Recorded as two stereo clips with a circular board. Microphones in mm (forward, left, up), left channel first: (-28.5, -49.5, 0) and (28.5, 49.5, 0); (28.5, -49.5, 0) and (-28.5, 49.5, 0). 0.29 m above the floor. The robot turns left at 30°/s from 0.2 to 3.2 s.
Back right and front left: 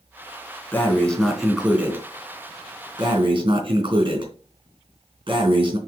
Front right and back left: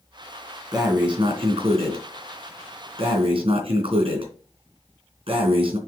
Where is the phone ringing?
I don't hear a phone ringing.